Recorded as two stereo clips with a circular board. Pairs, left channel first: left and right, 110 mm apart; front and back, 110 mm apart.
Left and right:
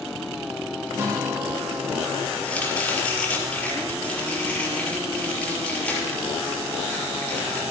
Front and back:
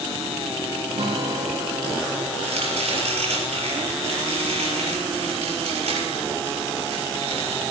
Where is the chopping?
165° left, 6 m.